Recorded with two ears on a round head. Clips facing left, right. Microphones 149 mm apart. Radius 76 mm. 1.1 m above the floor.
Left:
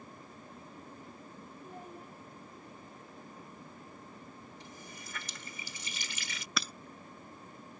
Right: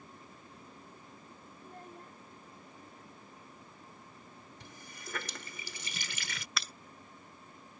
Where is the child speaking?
5° left (ahead or behind).